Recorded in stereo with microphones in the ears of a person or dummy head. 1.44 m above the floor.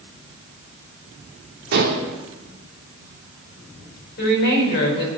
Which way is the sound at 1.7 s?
60° right (ahead or behind).